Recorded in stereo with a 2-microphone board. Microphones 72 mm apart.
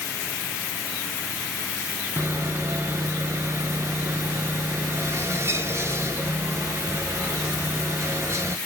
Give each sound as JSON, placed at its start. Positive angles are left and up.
{"t": 2.2, "sound": "sawing", "side_deg": -40, "distance_m": 0.6}